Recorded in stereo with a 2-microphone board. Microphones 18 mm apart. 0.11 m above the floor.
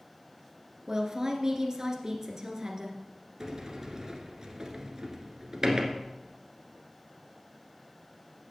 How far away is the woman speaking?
About 1.8 m.